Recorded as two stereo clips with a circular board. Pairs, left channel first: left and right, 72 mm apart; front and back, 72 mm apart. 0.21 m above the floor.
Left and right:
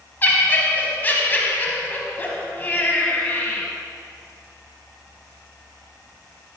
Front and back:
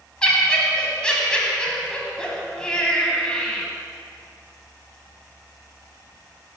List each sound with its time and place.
0.2 s laughter: 60° left, 1.1 m